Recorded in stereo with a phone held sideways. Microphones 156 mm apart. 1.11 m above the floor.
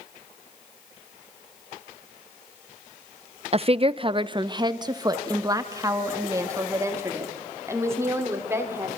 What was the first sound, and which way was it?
A woman speaking, 40° right (ahead or behind).